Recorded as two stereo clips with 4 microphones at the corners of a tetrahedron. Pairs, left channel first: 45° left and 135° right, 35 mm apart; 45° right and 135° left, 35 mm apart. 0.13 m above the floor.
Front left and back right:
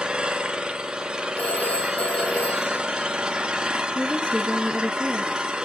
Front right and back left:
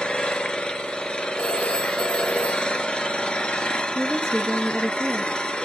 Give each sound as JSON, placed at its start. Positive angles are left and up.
{"t": 0.0, "sound": "an engine running", "azimuth_deg": -85, "distance_m": 1.6}
{"t": 1.4, "sound": "a phone ringing", "azimuth_deg": 15, "distance_m": 2.0}
{"t": 4.0, "sound": "a woman speaking", "azimuth_deg": 40, "distance_m": 1.6}